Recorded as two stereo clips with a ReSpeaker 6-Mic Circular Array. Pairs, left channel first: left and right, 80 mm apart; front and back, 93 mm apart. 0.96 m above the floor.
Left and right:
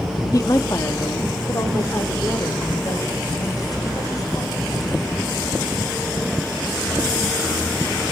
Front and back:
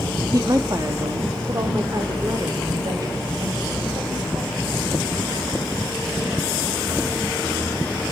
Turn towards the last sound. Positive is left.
turn(degrees=135)